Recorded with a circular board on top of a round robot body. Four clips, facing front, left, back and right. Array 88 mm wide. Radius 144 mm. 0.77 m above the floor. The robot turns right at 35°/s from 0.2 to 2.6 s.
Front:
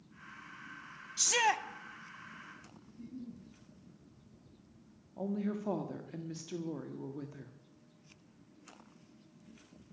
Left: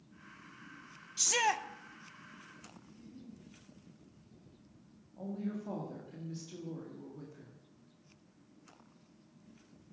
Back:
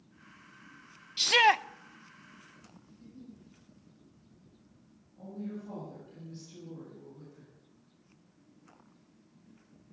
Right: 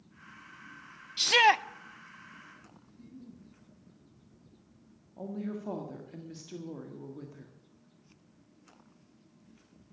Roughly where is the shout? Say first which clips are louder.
Right 8 dB, back 7 dB; behind right.